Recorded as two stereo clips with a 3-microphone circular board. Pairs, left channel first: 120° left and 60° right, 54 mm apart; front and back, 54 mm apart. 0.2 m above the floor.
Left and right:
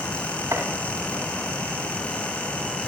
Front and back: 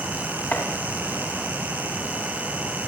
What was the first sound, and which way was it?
Chopping, 50° right.